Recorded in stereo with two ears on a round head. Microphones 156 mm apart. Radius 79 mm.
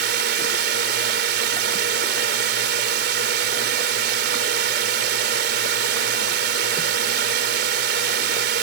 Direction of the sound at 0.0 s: 65° right (ahead or behind).